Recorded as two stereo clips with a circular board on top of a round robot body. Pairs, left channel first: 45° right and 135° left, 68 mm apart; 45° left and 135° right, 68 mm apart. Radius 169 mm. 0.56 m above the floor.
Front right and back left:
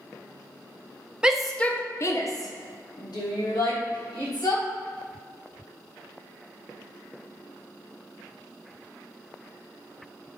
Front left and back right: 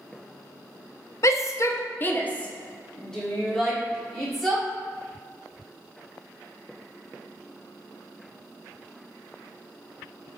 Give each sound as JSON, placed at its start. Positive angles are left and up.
{"t": 1.2, "sound": "a shout", "azimuth_deg": 60, "distance_m": 1.2}